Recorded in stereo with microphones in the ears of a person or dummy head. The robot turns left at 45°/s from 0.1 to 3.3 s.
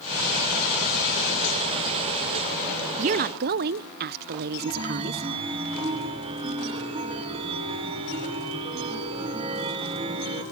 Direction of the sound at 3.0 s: 40° right (ahead or behind).